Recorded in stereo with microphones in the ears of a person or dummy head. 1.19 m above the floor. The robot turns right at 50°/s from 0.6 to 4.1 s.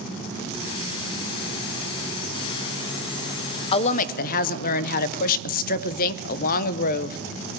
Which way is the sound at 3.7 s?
30° left (ahead or behind).